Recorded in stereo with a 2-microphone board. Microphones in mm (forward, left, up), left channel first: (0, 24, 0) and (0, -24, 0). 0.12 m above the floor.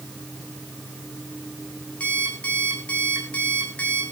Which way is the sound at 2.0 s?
25° left (ahead or behind).